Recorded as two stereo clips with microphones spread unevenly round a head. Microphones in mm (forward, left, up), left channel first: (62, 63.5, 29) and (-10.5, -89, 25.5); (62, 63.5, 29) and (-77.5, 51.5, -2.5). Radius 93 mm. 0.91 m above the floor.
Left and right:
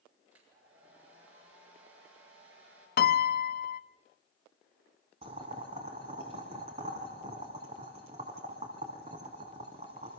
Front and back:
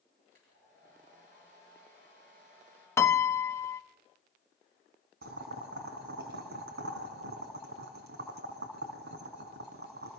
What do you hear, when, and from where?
0.3 s a hair dryer: 125° right, 8 m
3.0 s a piano: 80° left, 1.0 m
5.2 s boiling: 175° right, 3 m